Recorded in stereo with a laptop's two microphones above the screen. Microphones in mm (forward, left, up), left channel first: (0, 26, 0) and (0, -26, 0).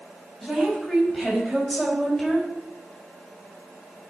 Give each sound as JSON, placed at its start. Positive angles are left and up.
{"t": 0.4, "sound": "a woman speaking", "side_deg": 10, "distance_m": 5.5}